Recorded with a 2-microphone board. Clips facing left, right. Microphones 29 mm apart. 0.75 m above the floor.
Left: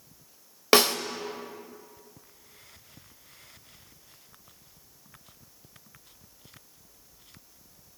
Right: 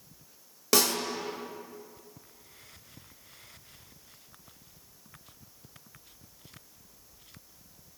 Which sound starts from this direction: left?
A snare drum, at 0.7 s.